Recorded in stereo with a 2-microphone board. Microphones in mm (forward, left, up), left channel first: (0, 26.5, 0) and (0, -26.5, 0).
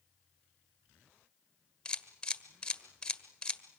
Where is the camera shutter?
15° left (ahead or behind), 1.6 m.